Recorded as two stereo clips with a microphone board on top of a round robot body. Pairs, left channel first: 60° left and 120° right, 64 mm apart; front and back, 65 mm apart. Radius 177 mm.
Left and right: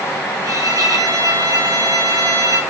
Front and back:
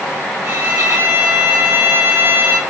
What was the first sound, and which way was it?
A violin, 135° right.